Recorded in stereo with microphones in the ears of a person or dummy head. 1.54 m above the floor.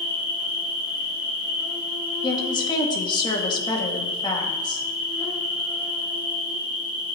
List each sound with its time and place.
0.0 s an insect: 5° right (ahead or behind), 4.5 m
2.2 s a woman speaking: 30° left (ahead or behind), 1.9 m